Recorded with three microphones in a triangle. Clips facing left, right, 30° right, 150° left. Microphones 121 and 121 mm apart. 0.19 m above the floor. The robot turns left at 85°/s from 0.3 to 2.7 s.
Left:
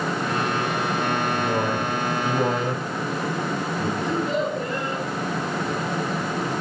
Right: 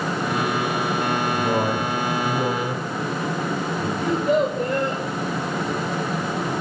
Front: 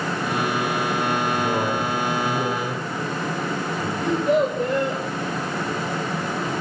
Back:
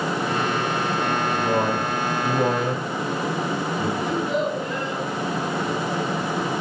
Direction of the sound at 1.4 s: 120° right.